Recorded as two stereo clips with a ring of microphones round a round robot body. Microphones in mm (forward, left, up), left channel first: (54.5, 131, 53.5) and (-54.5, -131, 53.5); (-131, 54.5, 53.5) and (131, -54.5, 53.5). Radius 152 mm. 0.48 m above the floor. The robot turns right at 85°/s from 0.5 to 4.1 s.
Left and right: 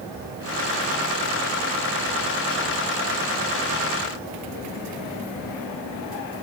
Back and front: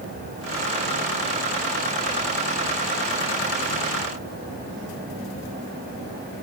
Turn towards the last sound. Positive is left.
No sound to turn to.